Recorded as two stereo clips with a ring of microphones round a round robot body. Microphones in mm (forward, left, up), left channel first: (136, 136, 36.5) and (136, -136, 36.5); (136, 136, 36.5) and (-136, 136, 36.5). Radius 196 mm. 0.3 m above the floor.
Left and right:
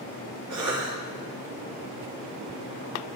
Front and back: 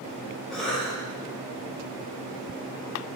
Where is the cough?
90° right, 2.5 m.